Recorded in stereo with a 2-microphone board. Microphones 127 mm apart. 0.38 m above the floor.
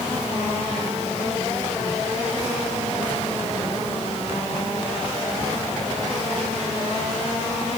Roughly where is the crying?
I don't hear crying.